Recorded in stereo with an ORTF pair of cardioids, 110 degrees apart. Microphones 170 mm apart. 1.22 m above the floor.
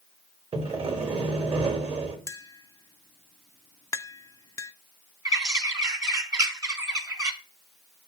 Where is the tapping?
20° left, 0.6 m.